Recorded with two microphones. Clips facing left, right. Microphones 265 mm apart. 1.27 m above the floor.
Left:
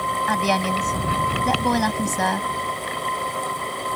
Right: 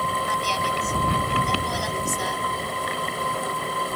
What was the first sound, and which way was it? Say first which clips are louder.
A woman speaking: left 6 dB; 75° left (ahead or behind).